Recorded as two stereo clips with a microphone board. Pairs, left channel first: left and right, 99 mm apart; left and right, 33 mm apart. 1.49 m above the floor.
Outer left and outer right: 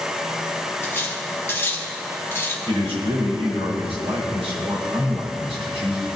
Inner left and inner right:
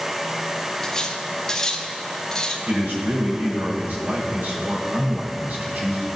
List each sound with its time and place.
0.8 s cutlery clinking: 25° left (ahead or behind), 1.5 m
2.7 s a man speaking: 80° right, 5.5 m